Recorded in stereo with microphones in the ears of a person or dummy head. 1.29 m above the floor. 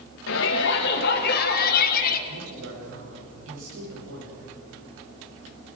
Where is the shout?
75° left (ahead or behind), 1.8 m; by 2.2 s 50° left (ahead or behind), 2.5 m.